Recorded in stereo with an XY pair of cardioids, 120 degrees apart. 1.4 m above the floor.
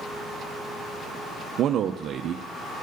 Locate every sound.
1.6 s a man speaking: 55° right, 0.6 m